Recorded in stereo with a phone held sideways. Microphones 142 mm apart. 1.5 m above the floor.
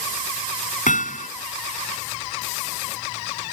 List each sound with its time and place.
0.9 s hammering: 65° left (ahead or behind)